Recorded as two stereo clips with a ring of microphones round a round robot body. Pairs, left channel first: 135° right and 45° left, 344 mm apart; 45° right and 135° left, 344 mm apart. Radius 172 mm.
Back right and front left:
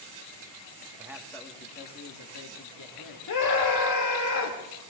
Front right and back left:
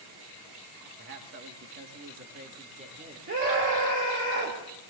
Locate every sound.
1.0 s a man speaking: 115° left, 1.3 m; by 3.2 s 155° right, 2 m
3.3 s a scream: 170° right, 2.5 m